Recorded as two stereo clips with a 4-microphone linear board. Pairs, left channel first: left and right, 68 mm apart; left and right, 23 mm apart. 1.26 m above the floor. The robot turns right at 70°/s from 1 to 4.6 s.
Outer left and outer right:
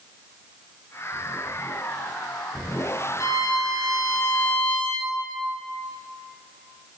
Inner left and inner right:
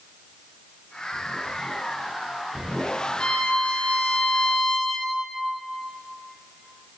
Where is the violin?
55° left, 0.6 m; by 5.1 s 155° left, 0.6 m.